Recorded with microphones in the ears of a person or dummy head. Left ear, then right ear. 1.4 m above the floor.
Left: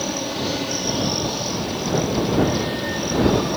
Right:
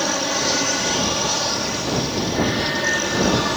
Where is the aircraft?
50° right (ahead or behind); by 3.6 s 60° right (ahead or behind).